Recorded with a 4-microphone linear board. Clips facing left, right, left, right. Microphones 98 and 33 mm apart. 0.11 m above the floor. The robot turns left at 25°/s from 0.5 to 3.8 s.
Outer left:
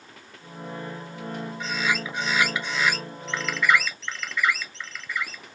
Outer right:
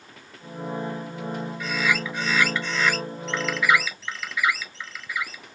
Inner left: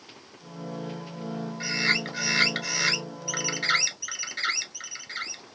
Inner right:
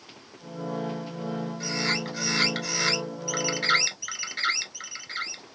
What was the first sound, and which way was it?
A bird, 45° left.